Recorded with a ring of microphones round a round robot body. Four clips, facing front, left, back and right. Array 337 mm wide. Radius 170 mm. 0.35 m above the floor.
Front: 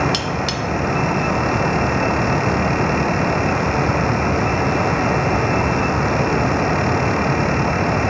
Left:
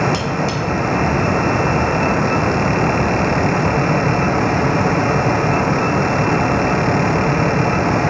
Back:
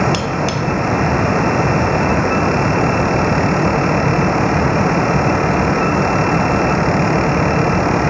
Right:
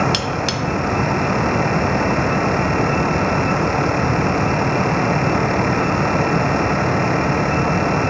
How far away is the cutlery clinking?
About 1.4 m.